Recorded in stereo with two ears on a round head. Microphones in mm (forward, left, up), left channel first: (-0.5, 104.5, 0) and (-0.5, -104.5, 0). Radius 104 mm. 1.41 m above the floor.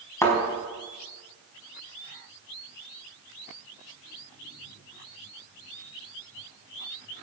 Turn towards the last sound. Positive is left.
turn(degrees=15)  # may be behind; listen again after turning